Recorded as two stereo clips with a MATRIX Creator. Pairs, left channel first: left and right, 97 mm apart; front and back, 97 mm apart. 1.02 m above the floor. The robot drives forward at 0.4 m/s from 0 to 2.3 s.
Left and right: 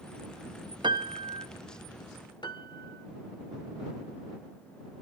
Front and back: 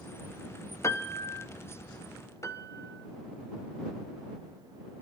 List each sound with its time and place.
0.8 s a piano: 60° right, 1.1 m; by 1.5 s 70° right, 1.0 m
2.4 s a piano: 55° left, 1.4 m